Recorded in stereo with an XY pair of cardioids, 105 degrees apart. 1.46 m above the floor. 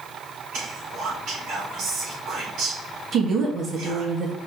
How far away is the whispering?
About 4.5 m.